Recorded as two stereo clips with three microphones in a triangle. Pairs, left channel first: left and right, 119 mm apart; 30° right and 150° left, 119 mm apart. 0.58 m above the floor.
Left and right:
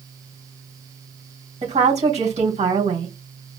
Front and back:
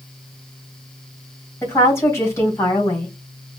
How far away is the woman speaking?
About 3 m.